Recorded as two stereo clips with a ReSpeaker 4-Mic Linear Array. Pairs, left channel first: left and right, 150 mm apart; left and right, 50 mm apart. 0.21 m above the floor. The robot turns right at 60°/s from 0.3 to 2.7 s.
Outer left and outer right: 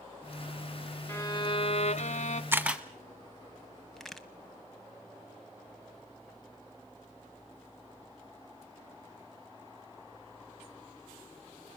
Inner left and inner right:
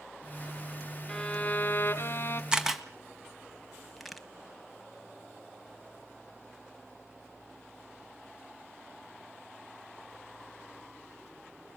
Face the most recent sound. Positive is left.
turn(degrees=0)  # may be behind; listen again after turning